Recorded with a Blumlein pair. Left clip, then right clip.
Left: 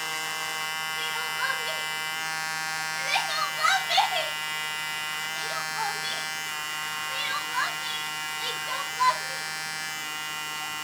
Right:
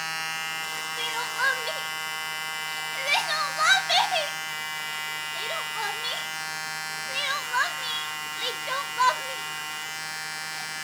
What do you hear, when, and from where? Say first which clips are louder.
1.0 s crying: right 4 dB; 25° right, 2 m